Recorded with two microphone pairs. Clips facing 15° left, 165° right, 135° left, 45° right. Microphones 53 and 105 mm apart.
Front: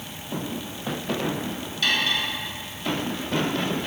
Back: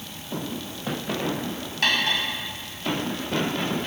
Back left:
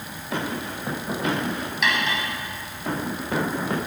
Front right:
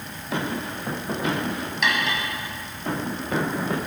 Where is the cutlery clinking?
135° right, 1.4 m.